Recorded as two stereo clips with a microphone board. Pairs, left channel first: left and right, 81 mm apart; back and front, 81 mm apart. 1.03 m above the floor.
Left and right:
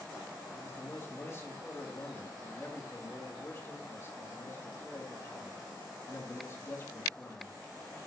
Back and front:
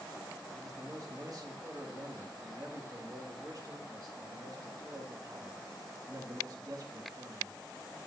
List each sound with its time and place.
0.6 s a man speaking: 35° left, 1.8 m